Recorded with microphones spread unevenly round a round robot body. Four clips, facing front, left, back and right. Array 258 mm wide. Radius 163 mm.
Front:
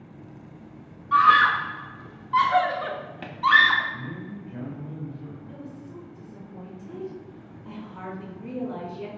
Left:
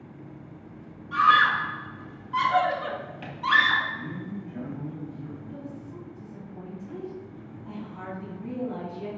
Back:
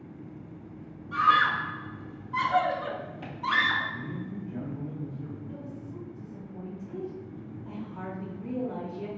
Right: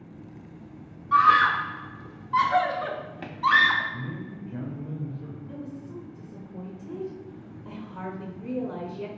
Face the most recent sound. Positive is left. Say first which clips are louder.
# right 1 dB, even
turn(degrees=-90)